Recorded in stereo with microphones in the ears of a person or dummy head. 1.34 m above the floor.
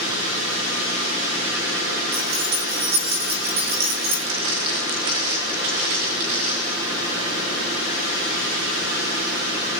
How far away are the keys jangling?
About 4 m.